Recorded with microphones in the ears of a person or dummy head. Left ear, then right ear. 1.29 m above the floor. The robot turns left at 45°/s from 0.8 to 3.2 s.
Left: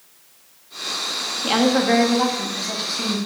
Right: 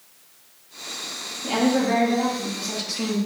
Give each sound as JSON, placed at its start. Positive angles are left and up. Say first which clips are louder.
{"t": 1.4, "sound": "a woman speaking", "louder": "left 3 dB", "azimuth_deg": 60, "distance_m": 1.9}